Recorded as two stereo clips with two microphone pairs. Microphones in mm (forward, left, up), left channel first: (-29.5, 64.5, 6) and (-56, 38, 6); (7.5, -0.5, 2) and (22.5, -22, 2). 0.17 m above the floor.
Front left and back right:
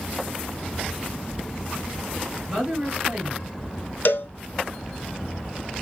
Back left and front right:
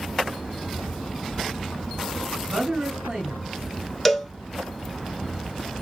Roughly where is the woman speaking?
Right.